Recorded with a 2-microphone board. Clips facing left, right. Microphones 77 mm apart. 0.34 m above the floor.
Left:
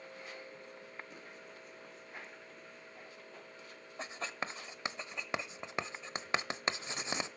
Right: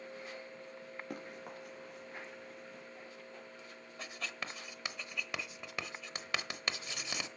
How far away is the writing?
About 0.9 m.